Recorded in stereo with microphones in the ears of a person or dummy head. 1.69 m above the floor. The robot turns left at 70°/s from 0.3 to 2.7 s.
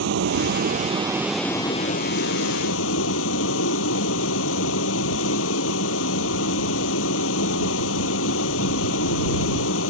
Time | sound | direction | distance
0.0 | a vehicle | 100° right | ?